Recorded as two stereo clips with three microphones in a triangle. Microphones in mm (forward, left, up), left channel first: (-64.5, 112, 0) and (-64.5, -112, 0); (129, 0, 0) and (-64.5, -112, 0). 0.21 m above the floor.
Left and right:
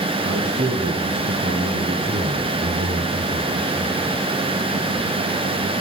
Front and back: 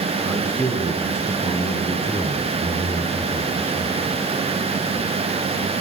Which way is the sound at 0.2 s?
70° right.